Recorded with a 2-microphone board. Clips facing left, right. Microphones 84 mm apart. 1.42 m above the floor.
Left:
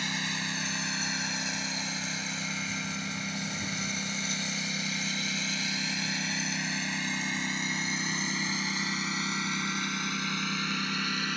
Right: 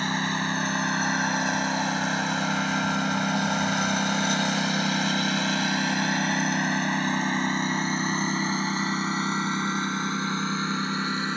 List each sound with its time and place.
0.0 s a lawn mower: 45° right (ahead or behind); by 11.4 s 30° right (ahead or behind)